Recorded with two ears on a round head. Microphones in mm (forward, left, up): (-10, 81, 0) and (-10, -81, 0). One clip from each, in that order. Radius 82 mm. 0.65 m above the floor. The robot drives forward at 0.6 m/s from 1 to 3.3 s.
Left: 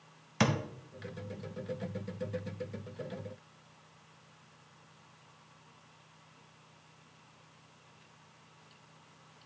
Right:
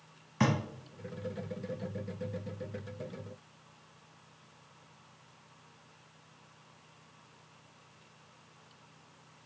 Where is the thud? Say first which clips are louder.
Even; 80° left, 1.3 m.